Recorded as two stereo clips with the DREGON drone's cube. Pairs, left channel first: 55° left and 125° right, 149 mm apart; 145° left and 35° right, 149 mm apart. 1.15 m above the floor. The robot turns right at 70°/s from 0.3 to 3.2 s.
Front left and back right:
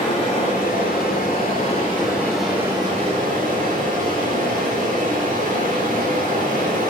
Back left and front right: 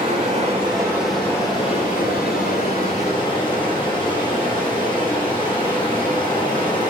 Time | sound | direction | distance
0.0 | running water | straight ahead | 3 m